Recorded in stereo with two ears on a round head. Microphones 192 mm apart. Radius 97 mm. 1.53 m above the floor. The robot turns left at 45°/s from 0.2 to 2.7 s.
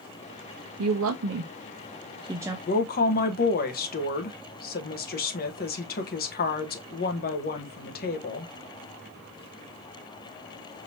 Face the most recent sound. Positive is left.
turn(degrees=45)  # may be behind; listen again after turning